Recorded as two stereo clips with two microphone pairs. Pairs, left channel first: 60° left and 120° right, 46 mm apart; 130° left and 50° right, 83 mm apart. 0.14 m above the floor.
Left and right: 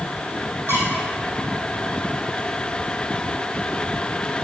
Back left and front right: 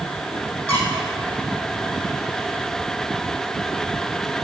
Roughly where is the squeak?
Behind right.